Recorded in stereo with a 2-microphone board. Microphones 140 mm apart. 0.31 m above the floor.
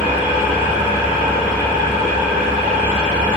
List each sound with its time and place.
0.0 s an engine running: 10° right (ahead or behind), 1.0 m